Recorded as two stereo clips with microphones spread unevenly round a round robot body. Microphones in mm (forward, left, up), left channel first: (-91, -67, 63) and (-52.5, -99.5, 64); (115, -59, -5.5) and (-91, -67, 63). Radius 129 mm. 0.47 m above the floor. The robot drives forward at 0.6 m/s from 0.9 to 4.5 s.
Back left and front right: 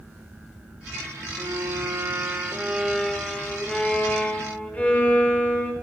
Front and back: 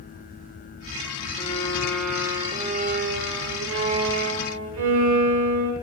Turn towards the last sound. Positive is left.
turn(degrees=-160)